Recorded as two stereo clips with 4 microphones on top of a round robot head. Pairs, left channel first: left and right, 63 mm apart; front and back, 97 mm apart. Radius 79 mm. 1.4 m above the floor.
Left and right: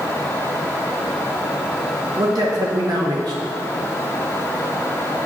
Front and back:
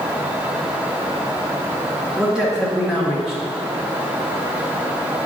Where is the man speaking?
95° right, 1.4 m.